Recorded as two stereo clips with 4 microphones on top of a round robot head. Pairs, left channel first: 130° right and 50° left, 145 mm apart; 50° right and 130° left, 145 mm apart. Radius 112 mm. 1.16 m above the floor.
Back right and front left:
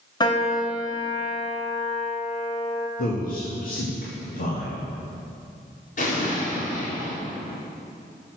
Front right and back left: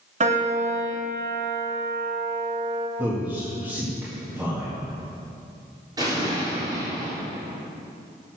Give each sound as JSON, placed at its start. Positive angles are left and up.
{"t": 0.2, "sound": "a piano", "azimuth_deg": 170, "distance_m": 2.0}
{"t": 3.0, "sound": "a man speaking", "azimuth_deg": -150, "distance_m": 2.0}
{"t": 6.0, "sound": "an explosion", "azimuth_deg": -165, "distance_m": 3.5}